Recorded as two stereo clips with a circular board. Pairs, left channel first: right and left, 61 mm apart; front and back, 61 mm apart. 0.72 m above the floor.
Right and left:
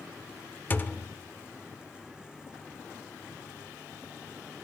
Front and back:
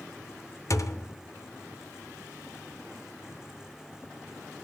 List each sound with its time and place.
0.7 s a thud: 30° right, 0.6 m